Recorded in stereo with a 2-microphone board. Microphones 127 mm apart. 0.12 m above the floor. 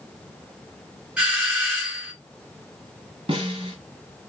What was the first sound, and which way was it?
A doorbell, 10° right (ahead or behind).